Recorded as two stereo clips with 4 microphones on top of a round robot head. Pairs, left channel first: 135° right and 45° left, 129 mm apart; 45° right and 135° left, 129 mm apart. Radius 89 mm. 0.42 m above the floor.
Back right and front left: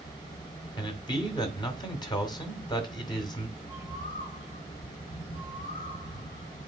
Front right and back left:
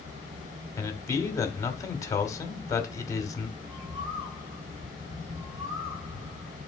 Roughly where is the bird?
Behind.